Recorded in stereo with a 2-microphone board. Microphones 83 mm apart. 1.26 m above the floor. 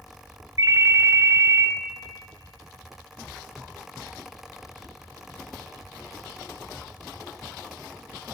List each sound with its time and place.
0.6 s a ringtone: 45° right (ahead or behind), 0.6 m